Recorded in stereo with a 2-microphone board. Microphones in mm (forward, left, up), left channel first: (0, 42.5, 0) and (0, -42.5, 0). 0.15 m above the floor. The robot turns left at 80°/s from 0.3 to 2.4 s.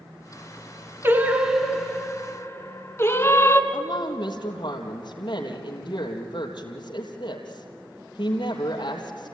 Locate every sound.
1.0 s singing: 130° right, 1.6 m; by 3.6 s 120° left, 1.6 m
3.7 s a woman speaking: 70° left (ahead or behind), 3.5 m